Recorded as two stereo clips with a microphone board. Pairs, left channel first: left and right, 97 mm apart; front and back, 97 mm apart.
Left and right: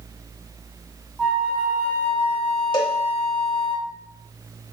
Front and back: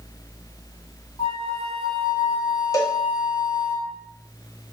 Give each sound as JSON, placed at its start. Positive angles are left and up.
{"t": 1.2, "sound": "a flute", "azimuth_deg": -10, "distance_m": 4.5}
{"t": 2.7, "sound": "a cowbell", "azimuth_deg": 50, "distance_m": 1.4}